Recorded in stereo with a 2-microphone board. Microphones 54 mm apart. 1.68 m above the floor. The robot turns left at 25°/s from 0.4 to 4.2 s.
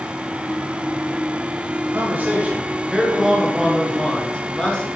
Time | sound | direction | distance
1.9 | a man speaking | 140° right | 1.6 m